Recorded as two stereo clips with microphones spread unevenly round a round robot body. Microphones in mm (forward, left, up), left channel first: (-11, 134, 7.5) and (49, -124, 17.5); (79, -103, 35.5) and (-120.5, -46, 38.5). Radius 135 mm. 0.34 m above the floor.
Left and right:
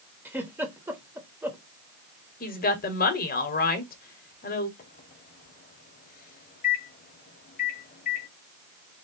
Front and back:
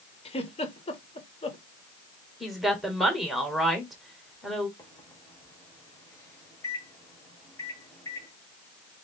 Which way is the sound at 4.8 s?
60° left.